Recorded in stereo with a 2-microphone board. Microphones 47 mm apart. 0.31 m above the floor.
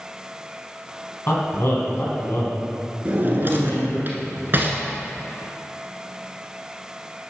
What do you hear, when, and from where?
1.3 s a man speaking: 55° left (ahead or behind), 3 m
3.0 s a drawer: 45° right (ahead or behind), 1.4 m